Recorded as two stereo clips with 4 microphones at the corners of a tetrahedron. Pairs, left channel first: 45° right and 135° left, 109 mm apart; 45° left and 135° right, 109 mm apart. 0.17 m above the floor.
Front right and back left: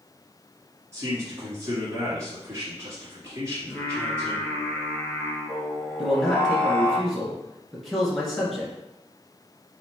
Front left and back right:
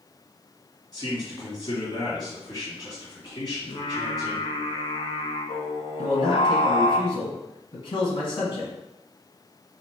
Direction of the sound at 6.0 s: 40° left.